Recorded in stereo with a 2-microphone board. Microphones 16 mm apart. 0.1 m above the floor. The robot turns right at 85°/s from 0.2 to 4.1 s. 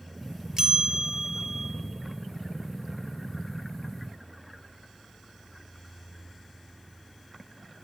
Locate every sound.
0.6 s a bell: 105° right, 0.8 m; by 1.7 s 10° right, 0.8 m